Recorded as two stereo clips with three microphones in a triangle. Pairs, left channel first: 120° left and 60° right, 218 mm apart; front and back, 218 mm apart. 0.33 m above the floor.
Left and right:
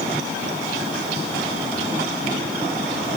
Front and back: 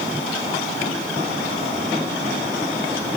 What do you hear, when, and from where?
Only background noise.